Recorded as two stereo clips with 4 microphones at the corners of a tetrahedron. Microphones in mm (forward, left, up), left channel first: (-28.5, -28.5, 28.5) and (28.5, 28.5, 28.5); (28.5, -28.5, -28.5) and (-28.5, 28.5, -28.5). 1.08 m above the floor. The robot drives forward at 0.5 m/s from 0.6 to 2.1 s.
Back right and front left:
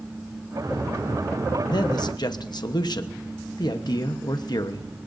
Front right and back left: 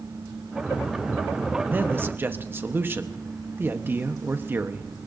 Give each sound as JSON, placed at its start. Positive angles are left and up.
{"t": 1.7, "sound": "a man speaking", "azimuth_deg": -160, "distance_m": 0.9}